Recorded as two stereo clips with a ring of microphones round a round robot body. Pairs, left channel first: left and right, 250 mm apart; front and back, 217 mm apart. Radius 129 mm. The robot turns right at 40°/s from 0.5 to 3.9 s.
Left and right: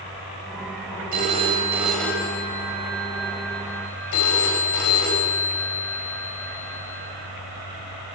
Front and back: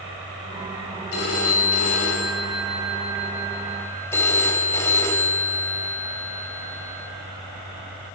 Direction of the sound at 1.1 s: 35° right.